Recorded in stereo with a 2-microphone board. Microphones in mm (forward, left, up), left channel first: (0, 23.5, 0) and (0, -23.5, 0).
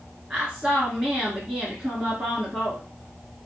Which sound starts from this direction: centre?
A woman speaking, at 0.3 s.